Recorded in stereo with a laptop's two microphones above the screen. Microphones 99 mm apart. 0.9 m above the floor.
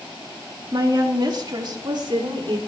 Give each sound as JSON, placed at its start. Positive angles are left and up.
{"t": 0.7, "sound": "a woman speaking", "side_deg": -45, "distance_m": 2.0}